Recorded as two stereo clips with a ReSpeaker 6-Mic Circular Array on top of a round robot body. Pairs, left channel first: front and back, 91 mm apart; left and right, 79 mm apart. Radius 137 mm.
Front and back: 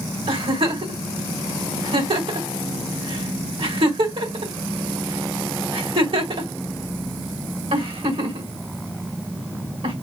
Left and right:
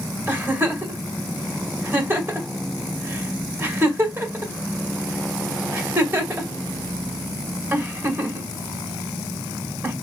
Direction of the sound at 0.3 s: 155° right.